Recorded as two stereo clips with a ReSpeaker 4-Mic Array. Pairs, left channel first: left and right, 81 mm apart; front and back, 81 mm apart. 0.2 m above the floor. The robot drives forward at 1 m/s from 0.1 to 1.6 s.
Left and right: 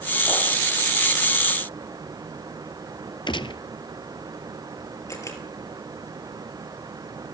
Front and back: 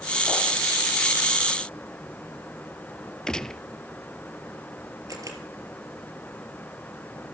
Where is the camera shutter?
135° left, 4 m.